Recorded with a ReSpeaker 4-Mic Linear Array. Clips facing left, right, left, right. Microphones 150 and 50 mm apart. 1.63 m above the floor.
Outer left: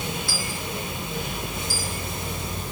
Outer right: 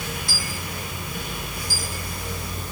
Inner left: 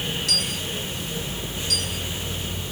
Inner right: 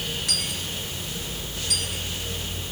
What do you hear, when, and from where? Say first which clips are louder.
0.3 s a dropped coin: outer left 2 dB, inner left 3 dB; 20° right (ahead or behind), 4.5 m